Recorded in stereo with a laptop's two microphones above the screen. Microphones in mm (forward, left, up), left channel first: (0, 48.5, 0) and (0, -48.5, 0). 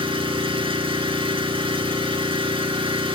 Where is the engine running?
70° right (ahead or behind), 4.5 m.